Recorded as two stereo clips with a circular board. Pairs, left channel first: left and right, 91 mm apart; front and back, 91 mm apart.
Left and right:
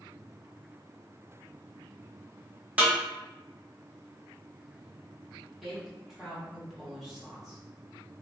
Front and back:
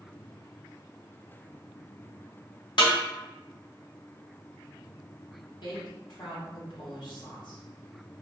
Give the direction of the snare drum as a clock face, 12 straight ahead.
1 o'clock.